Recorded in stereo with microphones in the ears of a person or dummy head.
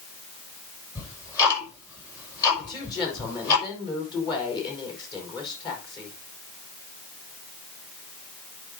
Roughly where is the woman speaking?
Left.